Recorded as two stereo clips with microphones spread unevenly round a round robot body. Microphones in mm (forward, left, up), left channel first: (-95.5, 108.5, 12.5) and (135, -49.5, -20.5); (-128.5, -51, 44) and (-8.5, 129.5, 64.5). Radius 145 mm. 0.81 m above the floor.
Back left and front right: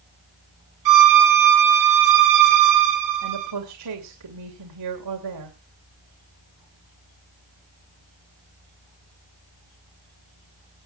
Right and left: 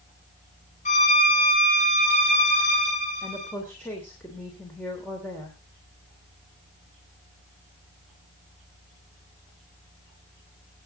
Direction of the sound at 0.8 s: 60° right.